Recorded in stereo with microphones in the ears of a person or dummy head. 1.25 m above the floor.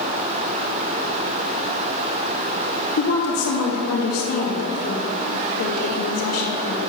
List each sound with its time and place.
3.0 s a woman speaking: 80° left, 2.5 m